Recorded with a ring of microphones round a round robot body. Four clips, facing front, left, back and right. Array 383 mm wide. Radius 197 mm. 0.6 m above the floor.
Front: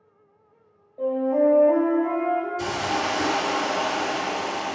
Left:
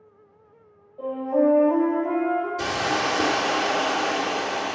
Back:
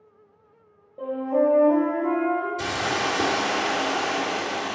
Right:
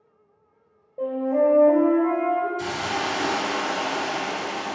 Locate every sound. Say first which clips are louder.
1.0 s a flute: even, front 2 dB; 125° right, 2.5 m
2.6 s a hiss: left 2 dB, front 1 dB; 140° left, 1.1 m